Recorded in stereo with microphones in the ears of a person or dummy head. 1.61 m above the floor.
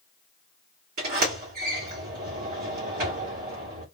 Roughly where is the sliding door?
Right.